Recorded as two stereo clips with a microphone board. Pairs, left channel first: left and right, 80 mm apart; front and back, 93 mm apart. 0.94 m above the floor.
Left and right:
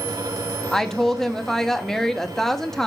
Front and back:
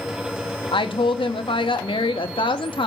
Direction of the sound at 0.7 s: 5° left.